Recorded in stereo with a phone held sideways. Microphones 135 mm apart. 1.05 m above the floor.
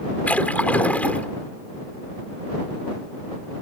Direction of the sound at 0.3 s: 10° left (ahead or behind).